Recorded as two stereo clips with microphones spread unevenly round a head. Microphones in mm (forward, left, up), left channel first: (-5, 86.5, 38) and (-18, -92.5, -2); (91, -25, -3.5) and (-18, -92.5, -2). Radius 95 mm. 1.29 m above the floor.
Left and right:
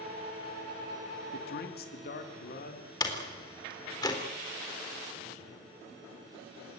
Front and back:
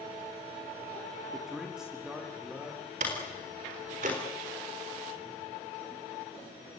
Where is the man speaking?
120° left, 2.5 m; by 2.9 s 130° left, 4 m.